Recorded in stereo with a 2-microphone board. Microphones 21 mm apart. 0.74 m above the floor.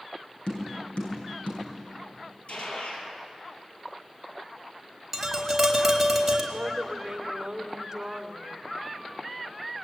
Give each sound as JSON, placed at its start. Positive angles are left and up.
{"t": 0.5, "sound": "tapping", "side_deg": 60, "distance_m": 8.0}
{"t": 2.5, "sound": "a gunshot", "side_deg": 75, "distance_m": 5.0}
{"t": 5.1, "sound": "tapping", "side_deg": -5, "distance_m": 4.0}
{"t": 6.5, "sound": "a woman speaking", "side_deg": -25, "distance_m": 2.5}